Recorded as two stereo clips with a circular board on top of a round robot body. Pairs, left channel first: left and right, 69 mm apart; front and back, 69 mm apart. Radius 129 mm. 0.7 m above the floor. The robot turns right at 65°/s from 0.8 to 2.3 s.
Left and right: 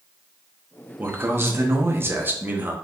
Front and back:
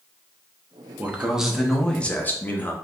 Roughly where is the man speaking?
Behind right.